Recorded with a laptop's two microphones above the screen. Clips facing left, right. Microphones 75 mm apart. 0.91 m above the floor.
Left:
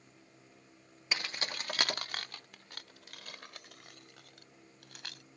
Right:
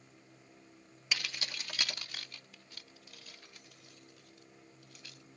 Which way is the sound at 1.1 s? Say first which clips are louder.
Left 2 dB; 30° left (ahead or behind).